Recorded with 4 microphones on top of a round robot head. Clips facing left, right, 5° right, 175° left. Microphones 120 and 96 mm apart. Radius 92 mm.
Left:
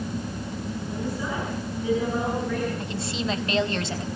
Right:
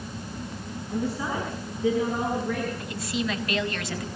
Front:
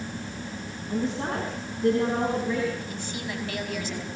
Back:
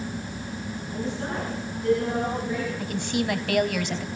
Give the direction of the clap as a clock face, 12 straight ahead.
No clap in this recording.